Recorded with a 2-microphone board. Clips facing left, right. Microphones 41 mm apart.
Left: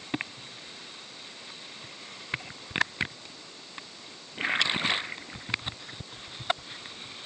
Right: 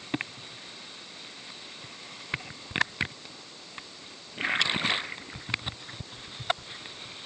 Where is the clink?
No clink in this recording.